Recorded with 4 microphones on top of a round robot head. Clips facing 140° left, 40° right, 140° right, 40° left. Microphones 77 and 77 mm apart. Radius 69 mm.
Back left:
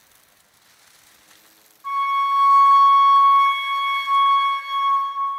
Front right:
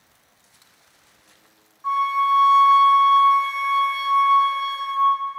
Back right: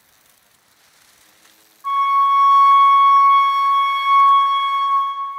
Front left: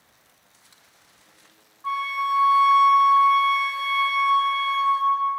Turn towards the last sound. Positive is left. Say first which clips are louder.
# front right 1 dB, back right 10 dB
turn(degrees=-85)